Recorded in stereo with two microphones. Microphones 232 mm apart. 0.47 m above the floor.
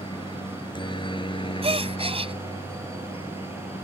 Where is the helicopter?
20° left (ahead or behind); by 3.9 s 25° left (ahead or behind).